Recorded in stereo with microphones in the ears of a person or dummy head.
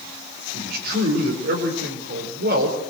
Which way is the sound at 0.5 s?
55° right (ahead or behind).